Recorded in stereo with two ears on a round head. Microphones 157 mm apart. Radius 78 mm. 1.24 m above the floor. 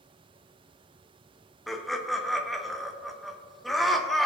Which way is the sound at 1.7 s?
Centre (ahead or behind).